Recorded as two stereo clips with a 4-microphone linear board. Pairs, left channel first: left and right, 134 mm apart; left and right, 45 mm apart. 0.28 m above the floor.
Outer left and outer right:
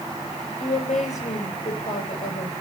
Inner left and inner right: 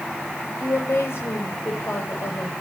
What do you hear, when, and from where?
0.6 s a woman speaking: 65° left (ahead or behind), 8 m